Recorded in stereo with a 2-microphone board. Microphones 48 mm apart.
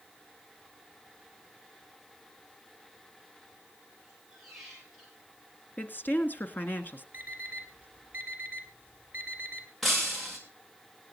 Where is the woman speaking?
45° left (ahead or behind), 1.7 m.